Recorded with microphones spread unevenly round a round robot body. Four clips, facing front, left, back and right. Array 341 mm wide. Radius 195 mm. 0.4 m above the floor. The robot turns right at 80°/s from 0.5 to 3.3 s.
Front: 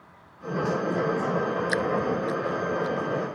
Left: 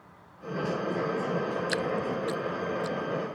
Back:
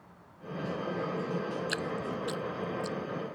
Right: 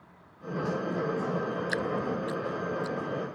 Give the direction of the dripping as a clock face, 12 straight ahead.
8 o'clock.